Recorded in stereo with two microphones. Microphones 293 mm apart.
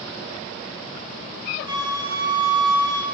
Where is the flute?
15° right (ahead or behind), 2 m.